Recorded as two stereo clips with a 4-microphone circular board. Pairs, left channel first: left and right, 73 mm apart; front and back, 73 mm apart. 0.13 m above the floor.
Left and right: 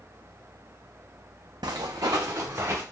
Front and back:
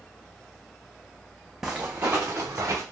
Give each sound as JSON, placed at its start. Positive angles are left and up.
{"t": 1.6, "sound": "footsteps", "azimuth_deg": -95, "distance_m": 0.5}